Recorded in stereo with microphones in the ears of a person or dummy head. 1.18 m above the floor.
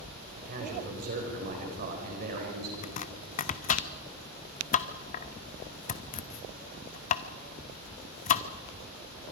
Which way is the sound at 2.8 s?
40° left (ahead or behind).